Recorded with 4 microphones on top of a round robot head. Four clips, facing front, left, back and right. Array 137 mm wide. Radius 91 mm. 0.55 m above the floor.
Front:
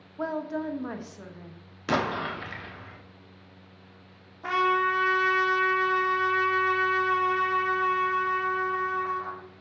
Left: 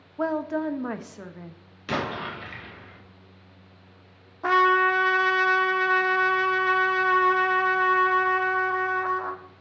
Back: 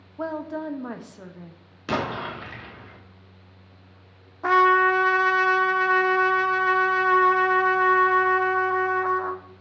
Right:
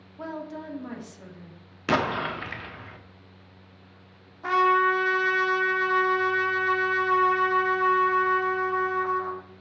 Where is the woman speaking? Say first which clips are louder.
Left 9 dB, back 1 dB; 100° left, 0.9 m.